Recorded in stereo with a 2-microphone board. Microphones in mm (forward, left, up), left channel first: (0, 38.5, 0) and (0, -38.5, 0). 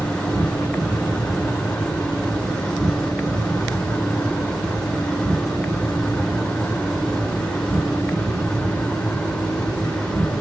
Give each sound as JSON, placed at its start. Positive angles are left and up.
{"t": 0.0, "sound": "an insect", "side_deg": 15, "distance_m": 1.0}